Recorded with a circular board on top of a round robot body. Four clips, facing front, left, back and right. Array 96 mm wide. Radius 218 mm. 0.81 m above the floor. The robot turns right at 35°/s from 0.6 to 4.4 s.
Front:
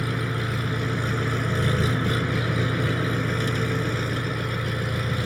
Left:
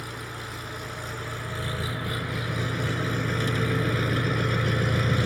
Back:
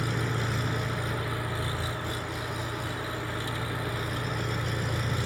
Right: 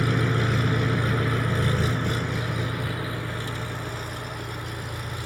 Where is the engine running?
70° right; by 5.3 s 65° left.